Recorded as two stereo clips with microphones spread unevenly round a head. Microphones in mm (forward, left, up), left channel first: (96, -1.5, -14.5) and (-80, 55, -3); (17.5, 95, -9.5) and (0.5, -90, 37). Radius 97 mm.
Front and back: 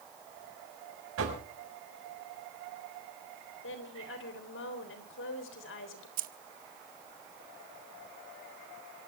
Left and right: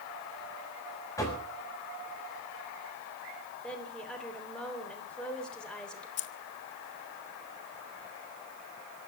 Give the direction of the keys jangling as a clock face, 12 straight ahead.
8 o'clock.